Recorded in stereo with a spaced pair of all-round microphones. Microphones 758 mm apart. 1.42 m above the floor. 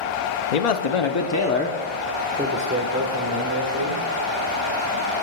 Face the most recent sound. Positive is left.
turn(degrees=-30)  # may be behind; listen again after turning